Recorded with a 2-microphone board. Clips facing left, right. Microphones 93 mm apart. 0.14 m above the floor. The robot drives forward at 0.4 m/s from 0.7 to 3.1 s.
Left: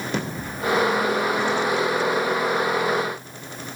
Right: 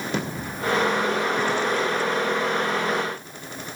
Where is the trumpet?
No trumpet in this recording.